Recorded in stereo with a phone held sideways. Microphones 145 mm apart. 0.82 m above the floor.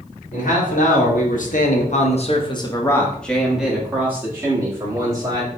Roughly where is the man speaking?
Left.